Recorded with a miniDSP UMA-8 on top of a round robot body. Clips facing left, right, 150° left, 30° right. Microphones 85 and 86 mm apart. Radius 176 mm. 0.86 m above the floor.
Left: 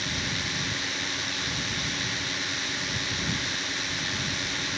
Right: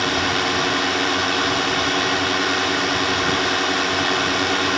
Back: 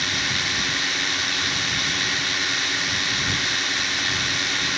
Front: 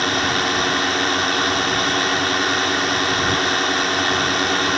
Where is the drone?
70° right.